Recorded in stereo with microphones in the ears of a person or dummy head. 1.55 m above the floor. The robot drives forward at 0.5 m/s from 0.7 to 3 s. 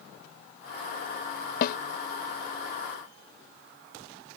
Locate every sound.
1.6 s a snare drum: 60° left (ahead or behind)